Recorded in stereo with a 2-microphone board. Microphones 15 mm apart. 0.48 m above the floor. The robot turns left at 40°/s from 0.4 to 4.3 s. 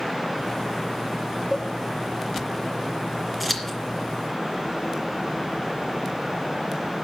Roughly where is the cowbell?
Right.